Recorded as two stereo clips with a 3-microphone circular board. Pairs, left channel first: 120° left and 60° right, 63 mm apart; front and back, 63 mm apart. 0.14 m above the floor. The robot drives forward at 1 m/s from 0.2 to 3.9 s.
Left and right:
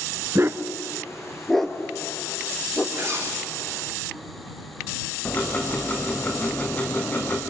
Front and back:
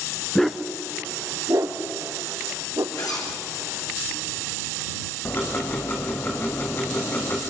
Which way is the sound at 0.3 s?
80° right.